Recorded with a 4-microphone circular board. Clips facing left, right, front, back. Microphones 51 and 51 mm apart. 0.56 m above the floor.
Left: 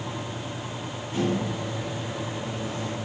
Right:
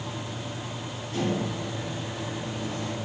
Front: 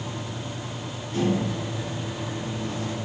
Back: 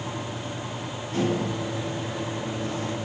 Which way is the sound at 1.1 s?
155° left.